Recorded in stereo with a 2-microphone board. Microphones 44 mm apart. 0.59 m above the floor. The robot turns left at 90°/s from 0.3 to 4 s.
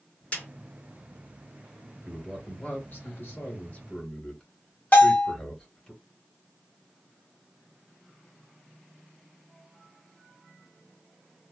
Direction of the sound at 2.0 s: 20° right (ahead or behind).